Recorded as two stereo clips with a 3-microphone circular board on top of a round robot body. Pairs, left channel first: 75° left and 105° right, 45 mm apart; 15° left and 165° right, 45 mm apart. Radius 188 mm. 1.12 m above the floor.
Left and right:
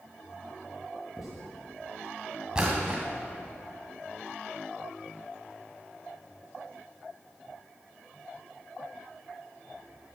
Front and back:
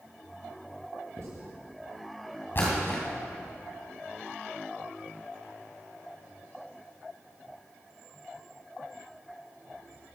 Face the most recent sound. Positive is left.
turn(degrees=-35)